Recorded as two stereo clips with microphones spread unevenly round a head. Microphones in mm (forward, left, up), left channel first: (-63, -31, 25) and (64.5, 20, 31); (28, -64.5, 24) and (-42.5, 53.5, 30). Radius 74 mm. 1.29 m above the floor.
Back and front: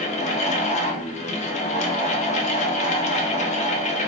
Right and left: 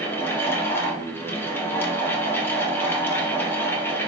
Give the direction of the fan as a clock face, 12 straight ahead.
4 o'clock.